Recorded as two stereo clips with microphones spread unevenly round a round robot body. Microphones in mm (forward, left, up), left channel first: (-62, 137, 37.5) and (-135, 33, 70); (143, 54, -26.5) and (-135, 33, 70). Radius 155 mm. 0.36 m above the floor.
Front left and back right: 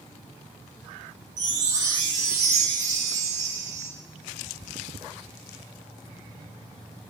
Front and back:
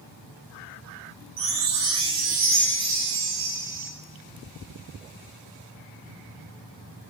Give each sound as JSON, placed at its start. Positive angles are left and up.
{"t": 1.4, "sound": "a chime", "azimuth_deg": -135, "distance_m": 7.0}